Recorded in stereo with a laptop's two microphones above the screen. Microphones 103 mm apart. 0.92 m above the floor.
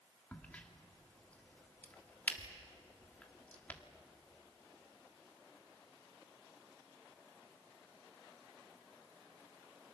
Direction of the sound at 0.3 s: 15° left (ahead or behind).